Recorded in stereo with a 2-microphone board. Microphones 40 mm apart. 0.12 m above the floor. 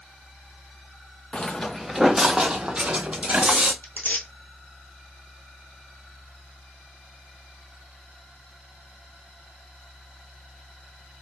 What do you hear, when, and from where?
1.3 s footsteps: 30° left (ahead or behind), 0.5 m; by 3.7 s 30° right (ahead or behind), 1.6 m
3.8 s tearing paper: 50° left (ahead or behind), 1.1 m